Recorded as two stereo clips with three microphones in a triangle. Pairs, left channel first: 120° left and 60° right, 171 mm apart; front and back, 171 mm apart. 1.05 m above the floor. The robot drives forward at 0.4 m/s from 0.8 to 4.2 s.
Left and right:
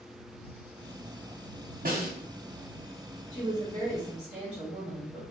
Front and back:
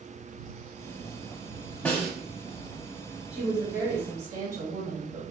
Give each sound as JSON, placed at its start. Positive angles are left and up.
{"t": 1.9, "sound": "a snare drum", "azimuth_deg": -85, "distance_m": 1.1}
{"t": 3.3, "sound": "a woman speaking", "azimuth_deg": -130, "distance_m": 1.0}